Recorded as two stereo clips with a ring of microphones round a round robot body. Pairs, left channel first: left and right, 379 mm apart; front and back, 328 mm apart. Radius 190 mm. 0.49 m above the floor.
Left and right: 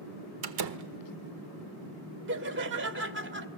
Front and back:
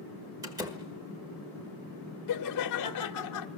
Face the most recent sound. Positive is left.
turn(degrees=-35)